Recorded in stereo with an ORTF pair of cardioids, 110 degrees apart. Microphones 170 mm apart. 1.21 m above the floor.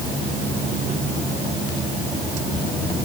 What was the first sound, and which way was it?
Only background noise.